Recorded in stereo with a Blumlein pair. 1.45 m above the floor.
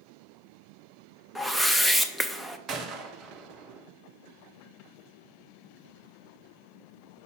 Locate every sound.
1.4 s a whoosh: 5° right, 0.6 m
2.7 s a gunshot: 30° right, 0.7 m